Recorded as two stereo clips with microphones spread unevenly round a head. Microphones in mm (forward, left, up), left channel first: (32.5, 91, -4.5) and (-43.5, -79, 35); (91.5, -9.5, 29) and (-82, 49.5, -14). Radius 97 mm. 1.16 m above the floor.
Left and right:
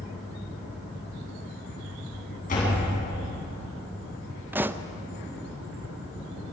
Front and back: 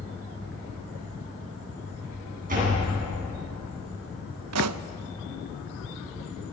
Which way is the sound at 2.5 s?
115° left.